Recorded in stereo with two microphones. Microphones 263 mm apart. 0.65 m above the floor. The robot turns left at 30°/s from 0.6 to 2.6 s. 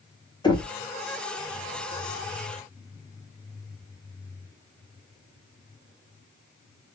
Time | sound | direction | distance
0.4 | knocking | 15° left (ahead or behind) | 1.8 m